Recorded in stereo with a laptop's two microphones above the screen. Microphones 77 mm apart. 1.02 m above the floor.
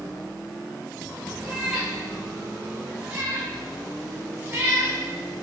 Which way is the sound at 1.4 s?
10° right (ahead or behind).